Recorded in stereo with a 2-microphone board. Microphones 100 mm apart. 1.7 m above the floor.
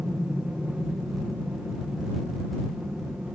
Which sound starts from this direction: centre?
An aircraft, at 0.0 s.